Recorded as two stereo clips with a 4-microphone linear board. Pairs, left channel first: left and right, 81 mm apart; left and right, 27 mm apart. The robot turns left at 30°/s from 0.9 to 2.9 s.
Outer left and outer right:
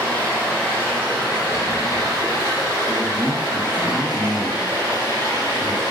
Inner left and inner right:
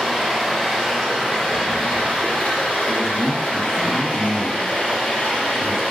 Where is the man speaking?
20° left (ahead or behind), 1.3 m.